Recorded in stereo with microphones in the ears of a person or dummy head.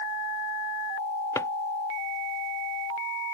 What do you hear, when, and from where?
1.4 s a drawer: 20° left (ahead or behind)